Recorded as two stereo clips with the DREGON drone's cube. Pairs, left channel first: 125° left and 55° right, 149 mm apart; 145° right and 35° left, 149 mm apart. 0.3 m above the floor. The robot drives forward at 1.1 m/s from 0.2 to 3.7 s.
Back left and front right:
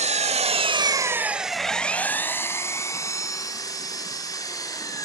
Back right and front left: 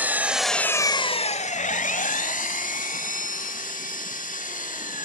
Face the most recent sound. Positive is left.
turn(degrees=-170)